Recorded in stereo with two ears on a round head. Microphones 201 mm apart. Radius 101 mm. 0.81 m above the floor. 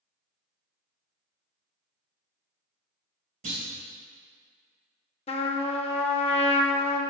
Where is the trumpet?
30° left (ahead or behind), 0.6 m.